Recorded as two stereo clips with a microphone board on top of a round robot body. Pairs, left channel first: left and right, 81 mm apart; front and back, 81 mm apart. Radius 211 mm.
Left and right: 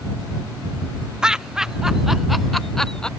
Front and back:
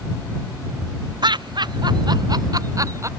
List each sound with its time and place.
1.2 s laughter: 170° right; by 3.1 s 165° left